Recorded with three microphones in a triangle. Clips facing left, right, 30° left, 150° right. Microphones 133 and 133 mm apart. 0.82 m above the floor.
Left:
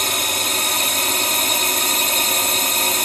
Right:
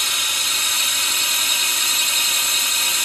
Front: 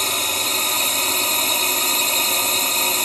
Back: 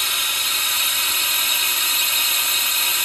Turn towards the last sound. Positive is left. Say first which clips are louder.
# left 8 dB, front 6 dB
turn(degrees=65)